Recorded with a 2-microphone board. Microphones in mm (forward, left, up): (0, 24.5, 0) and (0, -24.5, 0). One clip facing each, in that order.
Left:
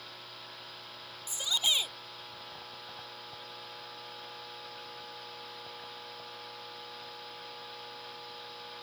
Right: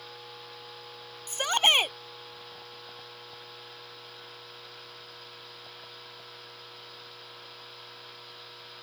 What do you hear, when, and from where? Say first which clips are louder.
1.3 s a shout: right 8 dB; 55° right (ahead or behind)